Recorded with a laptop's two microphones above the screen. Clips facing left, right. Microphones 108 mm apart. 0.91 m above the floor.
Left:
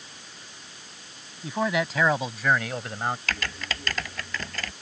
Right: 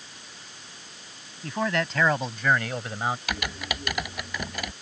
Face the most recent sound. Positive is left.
turn(degrees=-15)  # may be behind; listen again after turning